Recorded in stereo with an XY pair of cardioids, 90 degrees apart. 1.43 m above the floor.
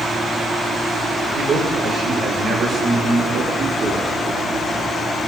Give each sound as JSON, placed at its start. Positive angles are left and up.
{"t": 1.4, "sound": "a man speaking", "azimuth_deg": -60, "distance_m": 6.0}